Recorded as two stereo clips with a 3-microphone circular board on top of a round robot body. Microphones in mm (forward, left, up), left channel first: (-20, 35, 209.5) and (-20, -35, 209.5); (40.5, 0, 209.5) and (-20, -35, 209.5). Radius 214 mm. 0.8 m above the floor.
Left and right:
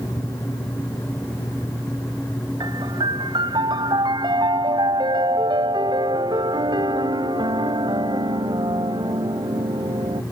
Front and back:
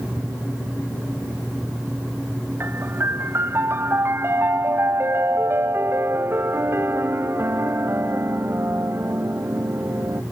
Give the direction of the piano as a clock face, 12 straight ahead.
3 o'clock.